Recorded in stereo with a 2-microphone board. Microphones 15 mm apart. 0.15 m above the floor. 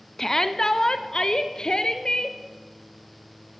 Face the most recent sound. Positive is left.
turn(degrees=65)  # may be behind; listen again after turning